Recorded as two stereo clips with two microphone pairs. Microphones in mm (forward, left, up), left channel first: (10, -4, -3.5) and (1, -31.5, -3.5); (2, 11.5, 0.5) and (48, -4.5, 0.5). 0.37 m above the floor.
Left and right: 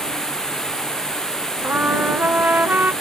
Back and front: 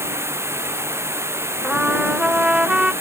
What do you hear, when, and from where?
0.0 s running water: straight ahead
1.6 s a trumpet: 90° right